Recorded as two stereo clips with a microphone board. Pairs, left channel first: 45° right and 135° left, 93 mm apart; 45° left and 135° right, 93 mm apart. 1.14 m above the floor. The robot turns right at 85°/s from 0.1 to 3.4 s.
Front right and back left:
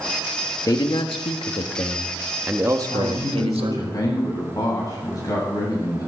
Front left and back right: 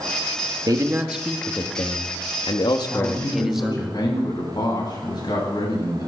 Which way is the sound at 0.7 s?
95° right.